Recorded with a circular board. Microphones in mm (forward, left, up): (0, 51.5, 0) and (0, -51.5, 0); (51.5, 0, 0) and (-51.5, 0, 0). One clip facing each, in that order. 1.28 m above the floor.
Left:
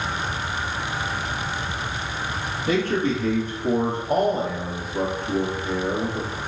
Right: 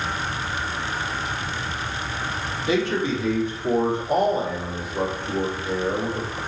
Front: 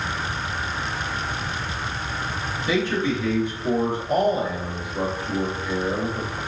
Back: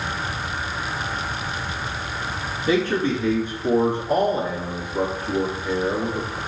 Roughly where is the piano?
I don't hear a piano.